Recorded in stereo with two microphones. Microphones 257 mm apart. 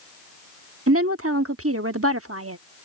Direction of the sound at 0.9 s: 60° right (ahead or behind).